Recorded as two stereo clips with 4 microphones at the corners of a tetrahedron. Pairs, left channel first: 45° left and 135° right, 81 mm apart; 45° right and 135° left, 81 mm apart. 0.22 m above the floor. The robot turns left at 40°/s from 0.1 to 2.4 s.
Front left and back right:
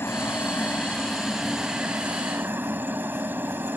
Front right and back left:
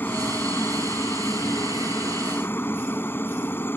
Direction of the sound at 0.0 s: 5° left.